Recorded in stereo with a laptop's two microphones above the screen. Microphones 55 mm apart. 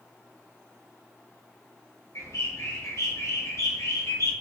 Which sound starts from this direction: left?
A bird, at 2.1 s.